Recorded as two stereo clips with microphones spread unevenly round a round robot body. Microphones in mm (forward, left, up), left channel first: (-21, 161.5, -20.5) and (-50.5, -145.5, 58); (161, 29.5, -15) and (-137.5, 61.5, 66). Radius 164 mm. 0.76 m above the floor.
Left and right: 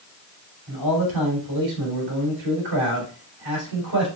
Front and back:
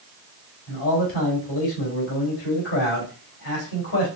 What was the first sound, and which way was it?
A man speaking, 70° right.